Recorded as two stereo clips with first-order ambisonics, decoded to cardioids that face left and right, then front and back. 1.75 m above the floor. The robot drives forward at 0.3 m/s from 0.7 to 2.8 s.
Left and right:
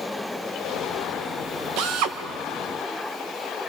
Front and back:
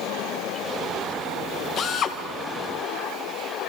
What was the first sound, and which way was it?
A drill, 55° right.